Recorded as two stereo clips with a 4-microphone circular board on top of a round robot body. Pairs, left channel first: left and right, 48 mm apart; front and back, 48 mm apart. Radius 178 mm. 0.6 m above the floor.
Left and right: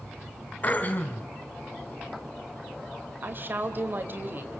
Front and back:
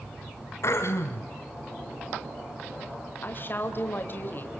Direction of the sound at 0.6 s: 30° left.